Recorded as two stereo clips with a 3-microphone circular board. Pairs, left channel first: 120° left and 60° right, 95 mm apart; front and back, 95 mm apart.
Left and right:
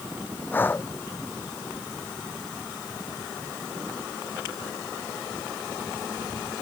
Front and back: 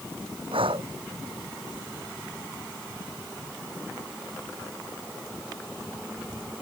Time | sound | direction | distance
0.5 | breathing | 170° right | ?